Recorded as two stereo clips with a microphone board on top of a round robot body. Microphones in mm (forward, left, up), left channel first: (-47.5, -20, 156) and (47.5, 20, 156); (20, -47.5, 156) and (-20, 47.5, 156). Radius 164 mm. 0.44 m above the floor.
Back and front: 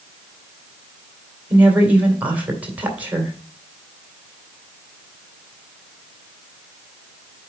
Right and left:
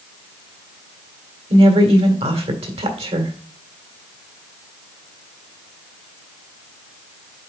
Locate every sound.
1.5 s a woman speaking: 100° left, 2.5 m